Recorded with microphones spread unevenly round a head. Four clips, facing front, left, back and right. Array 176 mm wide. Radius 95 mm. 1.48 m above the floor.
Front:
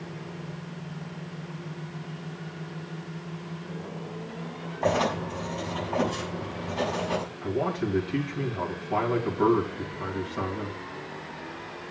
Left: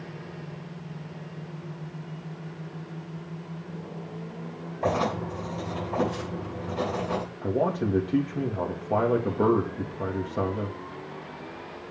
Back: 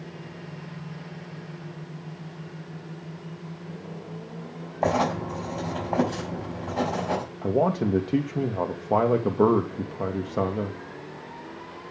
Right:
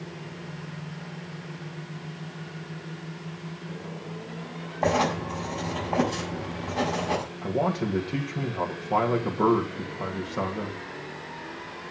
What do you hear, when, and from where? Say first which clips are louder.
4.8 s writing: right 2 dB, back 2 dB; 170° right, 5.5 m
7.4 s a man speaking: left 2 dB, back 7 dB; 170° left, 2.5 m